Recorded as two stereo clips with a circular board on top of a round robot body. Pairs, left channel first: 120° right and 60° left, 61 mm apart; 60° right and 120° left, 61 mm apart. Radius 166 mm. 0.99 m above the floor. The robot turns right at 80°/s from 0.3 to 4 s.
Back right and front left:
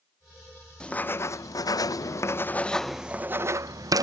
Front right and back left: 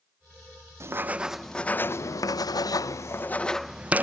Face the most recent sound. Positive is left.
turn(degrees=60)